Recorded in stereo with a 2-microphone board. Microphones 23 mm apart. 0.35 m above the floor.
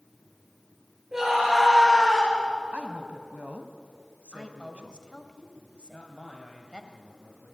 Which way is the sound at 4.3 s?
45° left (ahead or behind).